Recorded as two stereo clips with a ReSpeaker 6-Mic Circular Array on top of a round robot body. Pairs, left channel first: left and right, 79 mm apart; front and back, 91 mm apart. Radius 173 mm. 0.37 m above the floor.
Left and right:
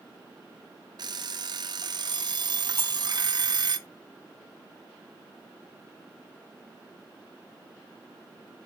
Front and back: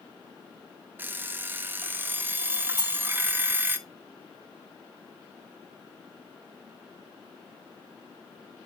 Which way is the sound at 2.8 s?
150° right.